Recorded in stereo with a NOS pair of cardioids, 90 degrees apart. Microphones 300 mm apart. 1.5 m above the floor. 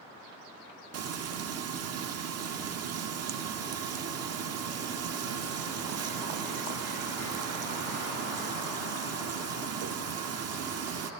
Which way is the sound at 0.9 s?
55° right.